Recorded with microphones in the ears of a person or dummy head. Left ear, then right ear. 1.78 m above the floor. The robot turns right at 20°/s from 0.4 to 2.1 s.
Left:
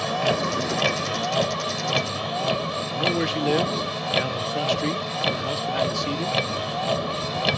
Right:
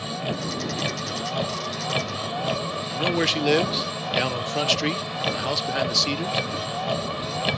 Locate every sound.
0.0 s a vehicle: 140° left; by 7.6 s 170° left
2.9 s a man speaking: 30° right (ahead or behind)